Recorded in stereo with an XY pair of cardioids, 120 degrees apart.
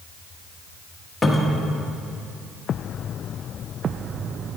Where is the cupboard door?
15° left, 1.1 m.